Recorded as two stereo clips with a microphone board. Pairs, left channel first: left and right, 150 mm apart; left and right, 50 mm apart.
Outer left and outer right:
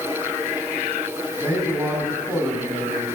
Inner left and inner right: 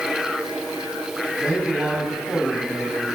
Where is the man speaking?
15° right (ahead or behind), 7 m.